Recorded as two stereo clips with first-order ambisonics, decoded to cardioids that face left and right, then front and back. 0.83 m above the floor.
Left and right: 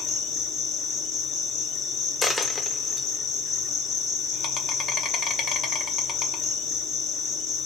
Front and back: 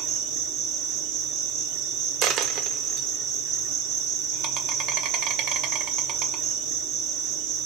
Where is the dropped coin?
165° left, 0.6 m.